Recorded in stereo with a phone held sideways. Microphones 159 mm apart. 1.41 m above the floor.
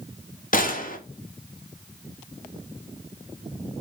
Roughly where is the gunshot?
Left.